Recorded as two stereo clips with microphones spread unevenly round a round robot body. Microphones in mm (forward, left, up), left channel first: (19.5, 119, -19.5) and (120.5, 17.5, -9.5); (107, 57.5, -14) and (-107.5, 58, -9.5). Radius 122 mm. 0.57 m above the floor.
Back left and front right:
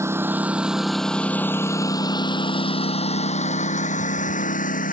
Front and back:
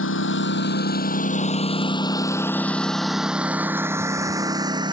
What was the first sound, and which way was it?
A lawn mower, 25° left.